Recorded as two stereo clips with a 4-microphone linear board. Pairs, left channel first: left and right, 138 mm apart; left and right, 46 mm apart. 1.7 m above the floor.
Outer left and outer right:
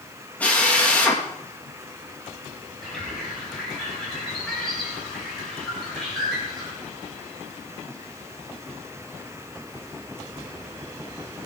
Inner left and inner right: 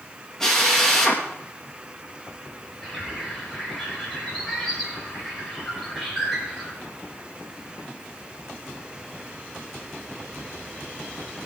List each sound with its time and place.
0.4 s a drill: 10° left (ahead or behind), 3 m
2.8 s a bird: 5° left (ahead or behind), 6 m